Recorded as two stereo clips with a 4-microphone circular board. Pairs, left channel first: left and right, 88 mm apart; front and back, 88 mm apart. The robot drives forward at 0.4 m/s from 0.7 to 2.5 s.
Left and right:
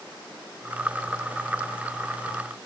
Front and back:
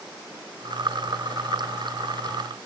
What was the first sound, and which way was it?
Only background noise.